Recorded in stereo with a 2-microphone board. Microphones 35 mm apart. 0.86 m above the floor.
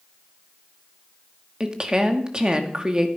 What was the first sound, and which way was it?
A woman speaking, 25° right (ahead or behind).